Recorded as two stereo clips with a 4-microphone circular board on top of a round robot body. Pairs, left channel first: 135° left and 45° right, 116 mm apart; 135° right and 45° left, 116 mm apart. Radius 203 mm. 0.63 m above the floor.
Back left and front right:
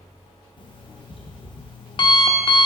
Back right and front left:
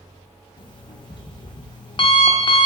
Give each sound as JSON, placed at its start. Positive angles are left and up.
{"t": 0.6, "sound": "an alarm clock", "azimuth_deg": 180, "distance_m": 0.6}